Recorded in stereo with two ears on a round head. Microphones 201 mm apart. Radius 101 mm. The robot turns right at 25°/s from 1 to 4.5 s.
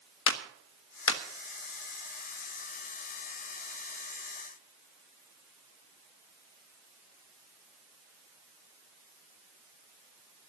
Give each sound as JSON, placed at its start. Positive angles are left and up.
{"t": 0.3, "sound": "a clap", "side_deg": 65, "distance_m": 1.3}